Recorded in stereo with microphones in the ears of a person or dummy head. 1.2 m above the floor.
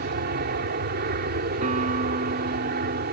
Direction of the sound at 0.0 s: 50° right (ahead or behind).